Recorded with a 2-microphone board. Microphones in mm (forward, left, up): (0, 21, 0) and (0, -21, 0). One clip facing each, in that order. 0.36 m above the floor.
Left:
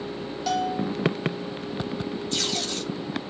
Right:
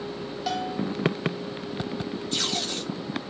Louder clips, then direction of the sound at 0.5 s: Left 3 dB; 10° right (ahead or behind).